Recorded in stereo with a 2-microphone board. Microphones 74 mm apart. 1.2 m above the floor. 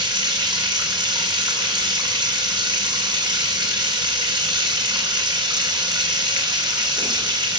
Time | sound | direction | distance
0.0 | running water | 75° right (ahead or behind) | 2.5 m